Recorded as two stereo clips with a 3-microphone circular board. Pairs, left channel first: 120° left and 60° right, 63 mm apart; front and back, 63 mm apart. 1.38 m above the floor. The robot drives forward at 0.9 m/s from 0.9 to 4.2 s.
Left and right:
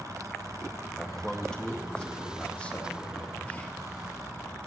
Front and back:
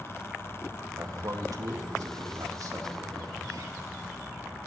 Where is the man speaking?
160° right, 1.6 m; by 3.8 s 170° right, 4 m.